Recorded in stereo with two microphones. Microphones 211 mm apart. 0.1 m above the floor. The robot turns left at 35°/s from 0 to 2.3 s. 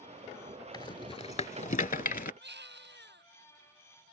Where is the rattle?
20° left (ahead or behind); by 2.3 s 45° left (ahead or behind).